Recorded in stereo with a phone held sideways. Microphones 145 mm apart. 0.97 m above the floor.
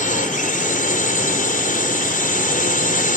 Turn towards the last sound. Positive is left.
turn(degrees=75)  # may be behind; listen again after turning